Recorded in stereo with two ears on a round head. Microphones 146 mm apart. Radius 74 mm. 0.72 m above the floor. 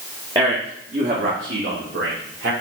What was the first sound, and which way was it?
A man speaking, 20° right (ahead or behind).